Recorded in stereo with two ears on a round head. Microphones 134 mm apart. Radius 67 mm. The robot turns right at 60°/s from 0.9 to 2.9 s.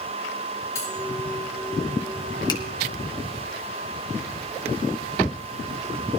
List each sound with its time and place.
0.8 s cutlery clinking: 20° left (ahead or behind), 7.5 m
2.5 s a finger snap: 30° left (ahead or behind), 1.6 m; by 2.6 s 20° left (ahead or behind), 1.6 m